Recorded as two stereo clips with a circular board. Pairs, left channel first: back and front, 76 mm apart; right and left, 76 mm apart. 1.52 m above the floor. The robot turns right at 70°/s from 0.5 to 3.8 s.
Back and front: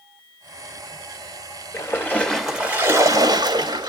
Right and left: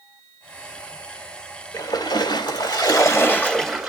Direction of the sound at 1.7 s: 140° right.